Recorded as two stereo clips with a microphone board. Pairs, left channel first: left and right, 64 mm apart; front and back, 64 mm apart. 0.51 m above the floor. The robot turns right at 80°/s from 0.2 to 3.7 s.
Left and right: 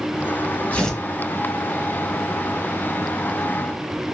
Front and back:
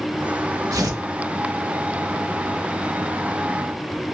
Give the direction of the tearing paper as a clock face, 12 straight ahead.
7 o'clock.